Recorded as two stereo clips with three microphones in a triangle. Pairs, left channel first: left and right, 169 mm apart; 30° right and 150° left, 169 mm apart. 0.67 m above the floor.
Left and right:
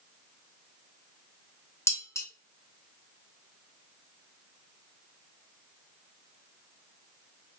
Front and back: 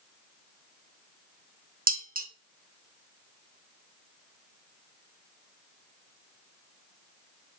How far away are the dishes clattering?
About 0.8 m.